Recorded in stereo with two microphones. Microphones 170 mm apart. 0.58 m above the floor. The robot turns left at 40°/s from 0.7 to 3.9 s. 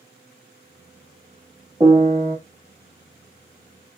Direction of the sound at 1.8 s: 20° right (ahead or behind).